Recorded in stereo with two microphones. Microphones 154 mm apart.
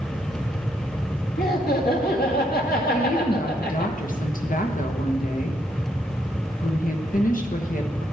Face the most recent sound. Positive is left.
turn(degrees=60)  # may be behind; listen again after turning